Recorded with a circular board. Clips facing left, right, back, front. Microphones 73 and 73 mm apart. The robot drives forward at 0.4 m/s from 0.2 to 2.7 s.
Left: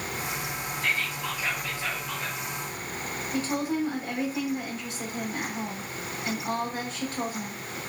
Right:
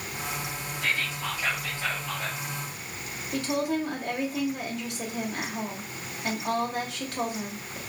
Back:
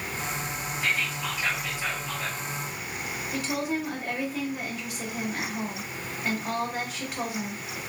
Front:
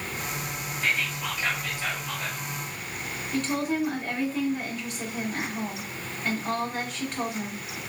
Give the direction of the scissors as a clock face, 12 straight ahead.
No scissors in this recording.